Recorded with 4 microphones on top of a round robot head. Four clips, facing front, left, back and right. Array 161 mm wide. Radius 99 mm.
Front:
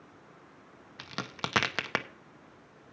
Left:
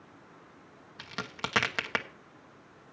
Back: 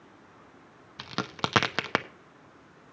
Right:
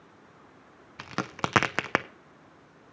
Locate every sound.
1.0 s a crack: 120° right, 0.7 m